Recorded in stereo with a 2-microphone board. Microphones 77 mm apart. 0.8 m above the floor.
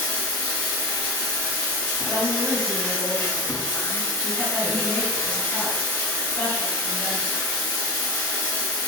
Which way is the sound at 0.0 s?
25° left (ahead or behind).